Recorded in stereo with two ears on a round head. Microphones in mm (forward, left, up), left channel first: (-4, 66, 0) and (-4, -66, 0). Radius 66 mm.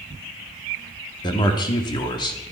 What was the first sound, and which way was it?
A man speaking, 30° left (ahead or behind).